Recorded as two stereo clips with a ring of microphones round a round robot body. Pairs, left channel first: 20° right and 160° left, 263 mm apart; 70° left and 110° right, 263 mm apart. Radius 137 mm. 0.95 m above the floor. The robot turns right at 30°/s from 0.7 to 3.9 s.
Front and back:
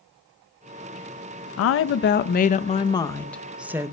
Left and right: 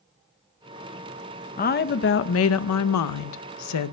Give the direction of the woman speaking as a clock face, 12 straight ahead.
12 o'clock.